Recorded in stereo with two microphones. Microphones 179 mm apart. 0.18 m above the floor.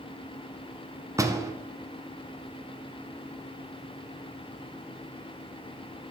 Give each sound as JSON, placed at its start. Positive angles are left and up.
{"t": 1.2, "sound": "a door slam", "side_deg": -20, "distance_m": 1.0}